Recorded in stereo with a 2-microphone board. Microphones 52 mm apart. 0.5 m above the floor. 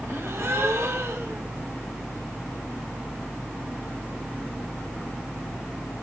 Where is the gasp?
65° right (ahead or behind), 2.5 m.